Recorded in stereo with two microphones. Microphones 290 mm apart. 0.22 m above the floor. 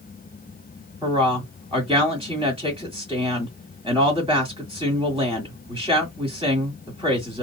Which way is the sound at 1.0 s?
20° right (ahead or behind).